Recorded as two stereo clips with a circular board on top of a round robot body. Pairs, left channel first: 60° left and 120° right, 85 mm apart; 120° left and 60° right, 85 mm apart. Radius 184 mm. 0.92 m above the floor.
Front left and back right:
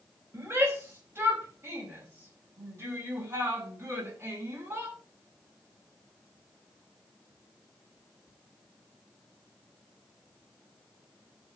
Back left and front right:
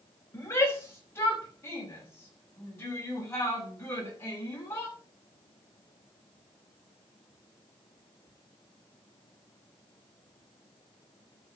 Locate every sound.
0.3 s a shout: straight behind, 6 m; by 4.9 s 175° left, 10 m